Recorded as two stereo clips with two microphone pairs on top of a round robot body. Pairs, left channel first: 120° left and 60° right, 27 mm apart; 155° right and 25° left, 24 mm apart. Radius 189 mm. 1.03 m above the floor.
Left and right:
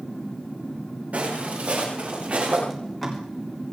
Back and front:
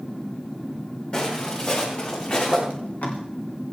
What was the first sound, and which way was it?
Footsteps, 110° right.